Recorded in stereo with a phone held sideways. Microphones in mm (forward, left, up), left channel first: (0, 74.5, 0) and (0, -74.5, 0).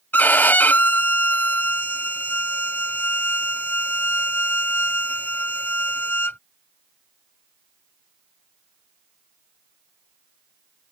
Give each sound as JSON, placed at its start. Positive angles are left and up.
{"t": 0.1, "sound": "a violin", "side_deg": 10}